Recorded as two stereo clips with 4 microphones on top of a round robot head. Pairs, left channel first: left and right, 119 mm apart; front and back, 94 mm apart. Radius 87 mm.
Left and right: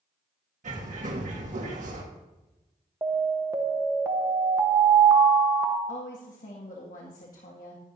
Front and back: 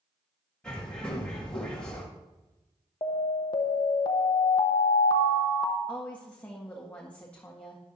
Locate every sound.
0.6 s a bird: 80° right, 1.8 m
3.0 s an alarm: 25° right, 0.9 m
5.9 s a woman speaking: 75° left, 1.8 m